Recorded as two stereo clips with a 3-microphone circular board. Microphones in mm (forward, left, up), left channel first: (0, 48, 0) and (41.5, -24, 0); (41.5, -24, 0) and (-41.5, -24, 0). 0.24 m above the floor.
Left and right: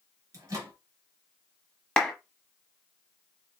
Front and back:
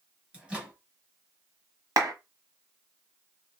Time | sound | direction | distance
0.3 | a microwave | 105° right | 2 m
2.0 | a clap | 165° right | 1.1 m